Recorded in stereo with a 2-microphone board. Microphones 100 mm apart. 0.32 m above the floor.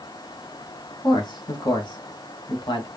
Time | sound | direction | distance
1.0 | a man speaking | 45° left (ahead or behind) | 1.4 m